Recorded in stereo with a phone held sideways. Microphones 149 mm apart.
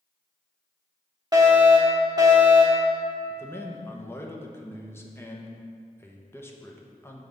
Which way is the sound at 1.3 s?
25° right (ahead or behind).